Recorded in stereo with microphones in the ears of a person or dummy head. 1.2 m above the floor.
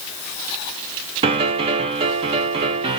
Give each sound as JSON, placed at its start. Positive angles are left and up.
{"t": 1.2, "sound": "a piano", "side_deg": -30, "distance_m": 0.5}